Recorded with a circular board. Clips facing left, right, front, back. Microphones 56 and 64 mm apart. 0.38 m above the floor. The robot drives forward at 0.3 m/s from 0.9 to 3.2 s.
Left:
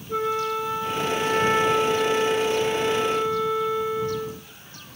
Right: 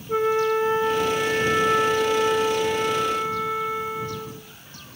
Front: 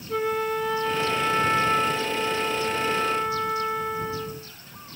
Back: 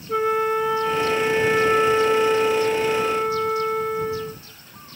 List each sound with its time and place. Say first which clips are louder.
0.1 s a flute: right 4 dB, back 5 dB; 115° right, 0.5 m; by 4.5 s 160° right, 1.0 m